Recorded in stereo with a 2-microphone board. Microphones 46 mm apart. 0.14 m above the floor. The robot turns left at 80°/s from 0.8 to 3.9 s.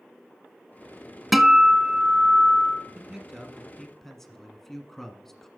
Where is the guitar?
Centre (ahead or behind), 0.6 m; by 2.9 s 15° right (ahead or behind), 0.6 m.